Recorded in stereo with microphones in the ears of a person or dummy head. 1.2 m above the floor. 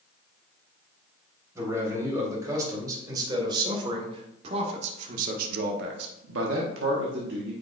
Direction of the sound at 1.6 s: 15° right (ahead or behind).